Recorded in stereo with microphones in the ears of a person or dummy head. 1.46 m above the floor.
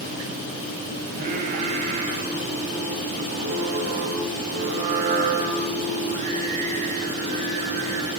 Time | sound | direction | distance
1.1 | singing | 50° right (ahead or behind) | 5 m